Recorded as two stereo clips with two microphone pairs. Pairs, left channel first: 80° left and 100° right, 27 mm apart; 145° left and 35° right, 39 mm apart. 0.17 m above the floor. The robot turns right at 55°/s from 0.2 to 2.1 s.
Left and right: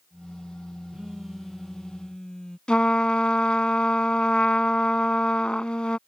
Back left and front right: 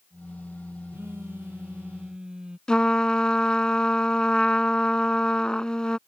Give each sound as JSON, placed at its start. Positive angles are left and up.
{"t": 0.9, "sound": "a phone buzzing", "azimuth_deg": -40}
{"t": 2.7, "sound": "a trumpet", "azimuth_deg": 90}